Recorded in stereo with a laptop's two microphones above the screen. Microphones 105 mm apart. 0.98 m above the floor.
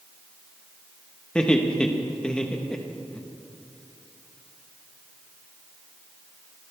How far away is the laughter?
About 1.1 m.